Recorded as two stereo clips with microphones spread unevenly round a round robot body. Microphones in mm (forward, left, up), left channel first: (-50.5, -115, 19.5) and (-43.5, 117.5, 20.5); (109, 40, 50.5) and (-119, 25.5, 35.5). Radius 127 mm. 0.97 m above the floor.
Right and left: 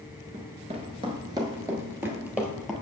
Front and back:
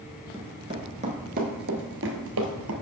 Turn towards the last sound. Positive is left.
turn(degrees=175)